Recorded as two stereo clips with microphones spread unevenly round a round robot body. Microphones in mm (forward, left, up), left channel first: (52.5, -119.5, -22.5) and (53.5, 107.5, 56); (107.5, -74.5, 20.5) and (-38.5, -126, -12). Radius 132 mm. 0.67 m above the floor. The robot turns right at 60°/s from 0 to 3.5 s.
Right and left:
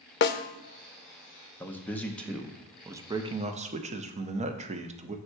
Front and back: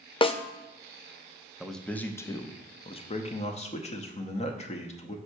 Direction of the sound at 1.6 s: 95° right.